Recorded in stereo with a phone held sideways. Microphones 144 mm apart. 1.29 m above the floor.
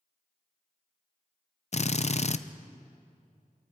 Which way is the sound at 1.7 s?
50° left (ahead or behind).